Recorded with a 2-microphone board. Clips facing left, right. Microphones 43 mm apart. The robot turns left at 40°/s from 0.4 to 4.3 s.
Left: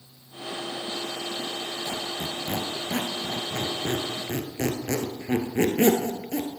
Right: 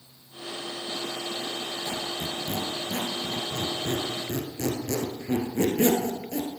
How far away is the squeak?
About 1.5 m.